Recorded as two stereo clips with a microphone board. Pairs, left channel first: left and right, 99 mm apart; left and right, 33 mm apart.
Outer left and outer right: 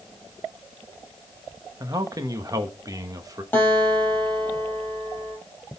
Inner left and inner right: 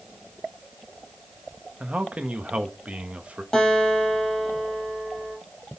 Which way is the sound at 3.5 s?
15° left (ahead or behind).